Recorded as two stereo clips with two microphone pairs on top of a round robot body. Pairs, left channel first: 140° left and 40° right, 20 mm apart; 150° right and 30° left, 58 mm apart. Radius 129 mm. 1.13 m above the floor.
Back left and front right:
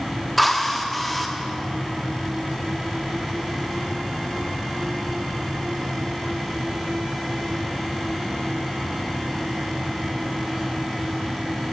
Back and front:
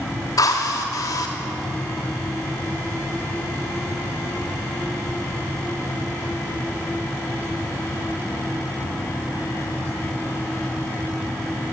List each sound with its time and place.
0.4 s a drill: 130° right, 1.1 m